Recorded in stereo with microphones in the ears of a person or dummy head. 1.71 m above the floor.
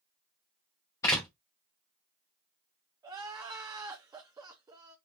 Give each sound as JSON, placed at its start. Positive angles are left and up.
{"t": 1.0, "sound": "a door slam", "side_deg": 10, "distance_m": 0.7}
{"t": 3.0, "sound": "crying", "side_deg": -10, "distance_m": 0.6}